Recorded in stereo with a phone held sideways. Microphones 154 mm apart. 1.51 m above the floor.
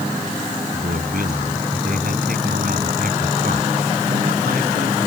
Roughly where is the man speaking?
Right.